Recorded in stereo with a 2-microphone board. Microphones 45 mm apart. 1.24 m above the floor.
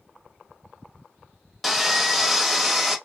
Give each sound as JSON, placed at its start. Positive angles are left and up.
{"t": 1.6, "sound": "sawing", "side_deg": 0, "distance_m": 0.8}